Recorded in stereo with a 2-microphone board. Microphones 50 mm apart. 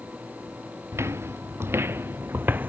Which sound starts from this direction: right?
Footsteps, at 0.9 s.